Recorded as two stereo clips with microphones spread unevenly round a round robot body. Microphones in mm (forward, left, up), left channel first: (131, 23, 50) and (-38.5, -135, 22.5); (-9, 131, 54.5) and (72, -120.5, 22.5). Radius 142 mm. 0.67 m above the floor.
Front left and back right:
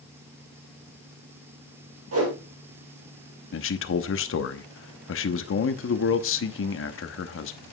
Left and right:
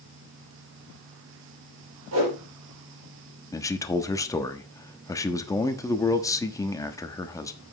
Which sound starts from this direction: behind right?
A whoosh, at 2.1 s.